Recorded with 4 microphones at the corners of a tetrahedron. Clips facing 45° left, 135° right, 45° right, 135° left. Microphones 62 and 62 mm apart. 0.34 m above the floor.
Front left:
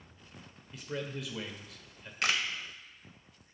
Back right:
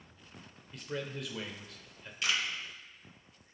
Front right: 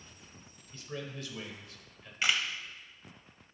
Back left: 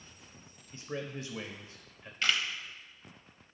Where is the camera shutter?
30° left, 0.7 m.